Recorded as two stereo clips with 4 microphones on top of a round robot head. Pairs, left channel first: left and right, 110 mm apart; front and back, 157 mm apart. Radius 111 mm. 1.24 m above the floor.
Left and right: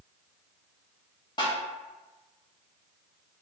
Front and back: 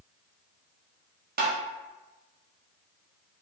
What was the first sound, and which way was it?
Tapping, 160° left.